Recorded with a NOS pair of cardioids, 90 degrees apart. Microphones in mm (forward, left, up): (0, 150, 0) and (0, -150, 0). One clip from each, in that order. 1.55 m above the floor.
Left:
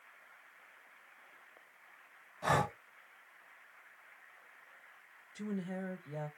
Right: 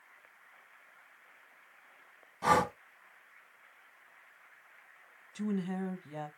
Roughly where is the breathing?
Ahead right.